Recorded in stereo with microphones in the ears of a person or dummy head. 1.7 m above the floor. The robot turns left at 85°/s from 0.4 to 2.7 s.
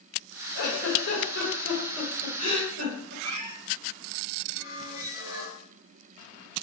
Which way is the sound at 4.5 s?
20° right (ahead or behind).